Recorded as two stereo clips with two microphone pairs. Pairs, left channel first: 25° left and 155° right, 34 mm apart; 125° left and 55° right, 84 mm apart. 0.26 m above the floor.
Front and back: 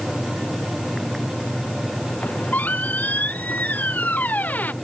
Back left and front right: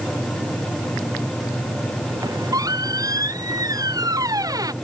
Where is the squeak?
10° right.